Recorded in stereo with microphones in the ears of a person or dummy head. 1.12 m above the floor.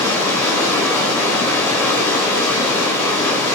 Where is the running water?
15° left (ahead or behind), 4.5 m.